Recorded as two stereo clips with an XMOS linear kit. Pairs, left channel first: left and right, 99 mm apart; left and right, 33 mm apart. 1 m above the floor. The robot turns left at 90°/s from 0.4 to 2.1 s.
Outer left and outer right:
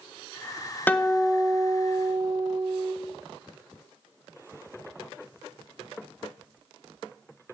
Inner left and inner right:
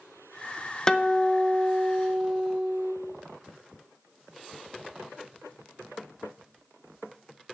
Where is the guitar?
25° left, 0.7 m; by 3.0 s 85° right, 0.7 m.